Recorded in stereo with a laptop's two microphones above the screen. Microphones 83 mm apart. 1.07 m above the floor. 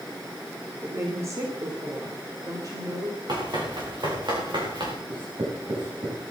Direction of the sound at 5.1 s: 75° right (ahead or behind).